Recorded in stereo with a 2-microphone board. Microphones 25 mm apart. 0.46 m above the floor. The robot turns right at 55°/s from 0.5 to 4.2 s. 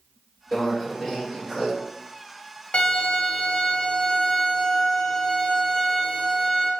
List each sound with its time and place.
0.5 s a microwave: 140° left, 1.7 m; by 1.7 s 155° right, 1.7 m
2.7 s a violin: 70° left, 0.7 m; by 6.7 s 150° left, 0.7 m